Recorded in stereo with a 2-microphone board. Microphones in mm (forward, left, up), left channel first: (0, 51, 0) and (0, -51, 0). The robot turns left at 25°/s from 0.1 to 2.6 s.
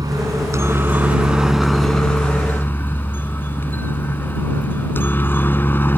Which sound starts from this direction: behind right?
A helicopter, at 0.0 s.